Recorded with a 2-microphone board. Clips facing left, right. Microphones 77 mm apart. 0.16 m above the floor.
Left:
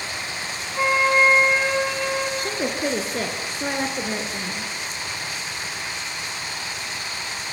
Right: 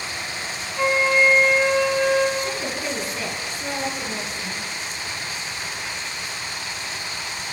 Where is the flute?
30° left (ahead or behind), 8.5 m.